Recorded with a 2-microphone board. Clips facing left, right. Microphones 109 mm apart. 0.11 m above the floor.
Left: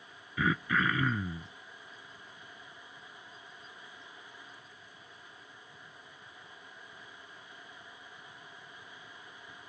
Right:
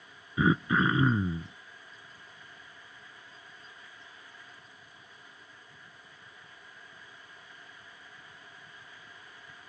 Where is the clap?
No clap in this recording.